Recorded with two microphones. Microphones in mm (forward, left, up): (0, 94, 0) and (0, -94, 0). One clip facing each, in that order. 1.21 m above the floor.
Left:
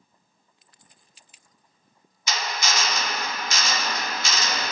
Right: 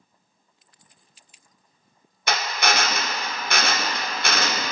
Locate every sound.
2.3 s a drill: 60° right (ahead or behind), 0.5 m